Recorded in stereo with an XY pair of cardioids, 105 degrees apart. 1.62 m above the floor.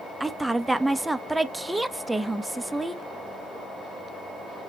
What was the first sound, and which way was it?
A woman speaking, 10° right.